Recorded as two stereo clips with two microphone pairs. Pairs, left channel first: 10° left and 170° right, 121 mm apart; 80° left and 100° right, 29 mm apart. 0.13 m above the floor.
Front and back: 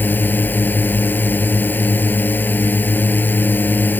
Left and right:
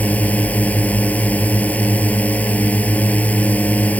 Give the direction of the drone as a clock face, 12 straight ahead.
9 o'clock.